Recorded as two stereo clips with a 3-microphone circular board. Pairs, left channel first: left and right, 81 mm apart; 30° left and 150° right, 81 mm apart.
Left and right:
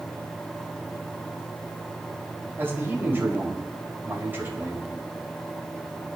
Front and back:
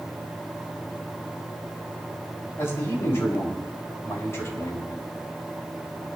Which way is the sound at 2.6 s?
25° right.